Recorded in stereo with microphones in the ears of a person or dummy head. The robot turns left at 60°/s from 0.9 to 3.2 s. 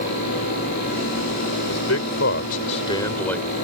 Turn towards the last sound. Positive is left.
turn(degrees=10)  # may be behind; listen again after turning